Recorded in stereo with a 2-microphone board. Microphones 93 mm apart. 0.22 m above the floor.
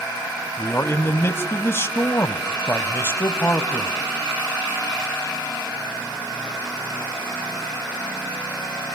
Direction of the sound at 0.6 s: 30° left (ahead or behind).